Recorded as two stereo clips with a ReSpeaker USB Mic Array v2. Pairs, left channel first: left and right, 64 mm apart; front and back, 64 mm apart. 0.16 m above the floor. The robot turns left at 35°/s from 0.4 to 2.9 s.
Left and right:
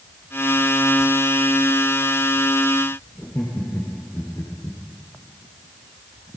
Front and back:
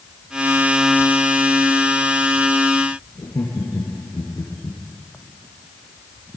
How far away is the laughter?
About 5 m.